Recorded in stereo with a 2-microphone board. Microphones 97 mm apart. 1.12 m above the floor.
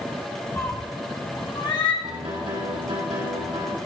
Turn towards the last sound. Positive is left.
turn(degrees=-80)